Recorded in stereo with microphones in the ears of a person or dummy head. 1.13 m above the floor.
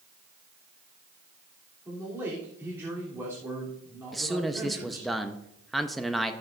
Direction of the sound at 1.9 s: 15° right (ahead or behind).